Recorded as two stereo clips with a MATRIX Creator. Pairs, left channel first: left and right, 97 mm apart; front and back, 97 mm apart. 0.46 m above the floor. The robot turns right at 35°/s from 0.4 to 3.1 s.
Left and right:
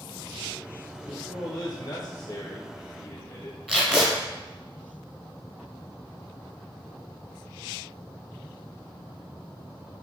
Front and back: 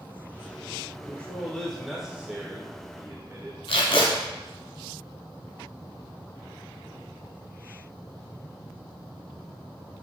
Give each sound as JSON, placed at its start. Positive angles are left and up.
{"t": 1.0, "sound": "a man speaking", "azimuth_deg": 60, "distance_m": 1.1}
{"t": 3.7, "sound": "tape being pulled", "azimuth_deg": -5, "distance_m": 1.4}